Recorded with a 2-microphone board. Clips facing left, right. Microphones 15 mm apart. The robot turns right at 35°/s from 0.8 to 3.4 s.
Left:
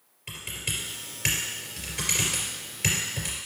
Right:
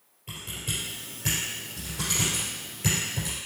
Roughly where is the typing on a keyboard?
Left.